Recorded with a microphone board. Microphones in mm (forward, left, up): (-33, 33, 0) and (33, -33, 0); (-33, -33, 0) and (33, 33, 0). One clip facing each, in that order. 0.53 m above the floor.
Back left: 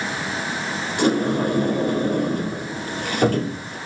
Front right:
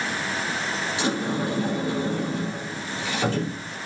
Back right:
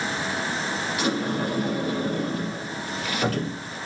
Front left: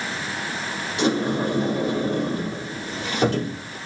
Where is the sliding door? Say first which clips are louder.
Back left 8 dB, front left 5 dB; 105° left, 4 m.